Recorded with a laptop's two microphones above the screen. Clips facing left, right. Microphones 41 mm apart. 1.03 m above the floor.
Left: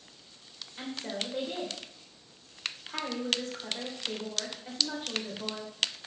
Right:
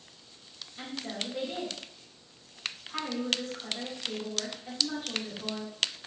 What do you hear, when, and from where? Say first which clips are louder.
0.8 s a woman speaking: left 1 dB; 50° left (ahead or behind), 4 m